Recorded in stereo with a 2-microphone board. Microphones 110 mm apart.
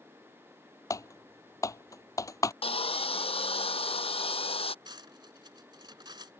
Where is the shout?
I don't hear a shout.